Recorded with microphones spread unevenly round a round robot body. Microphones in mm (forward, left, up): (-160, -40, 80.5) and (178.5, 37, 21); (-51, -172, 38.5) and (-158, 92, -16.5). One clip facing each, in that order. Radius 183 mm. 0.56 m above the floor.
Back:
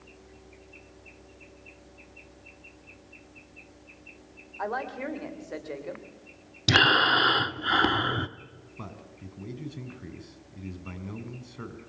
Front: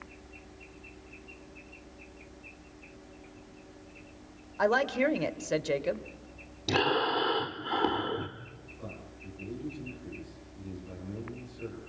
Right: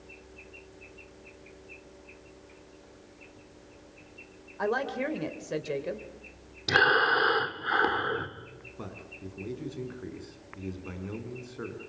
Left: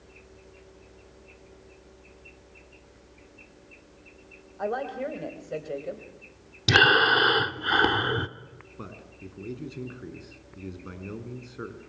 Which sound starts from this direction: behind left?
Breathing, at 6.7 s.